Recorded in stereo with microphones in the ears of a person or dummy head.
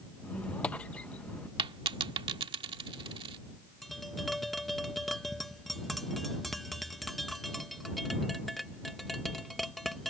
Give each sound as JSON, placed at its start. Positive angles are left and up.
{"t": 0.2, "sound": "a squeak", "side_deg": 5}
{"t": 1.6, "sound": "a dropped coin", "side_deg": -25}
{"t": 3.8, "sound": "tapping", "side_deg": 0}